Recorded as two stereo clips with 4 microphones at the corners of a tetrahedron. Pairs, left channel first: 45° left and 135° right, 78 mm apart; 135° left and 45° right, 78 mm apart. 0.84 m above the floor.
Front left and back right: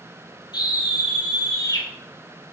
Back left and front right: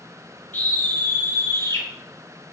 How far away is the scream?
About 5.5 m.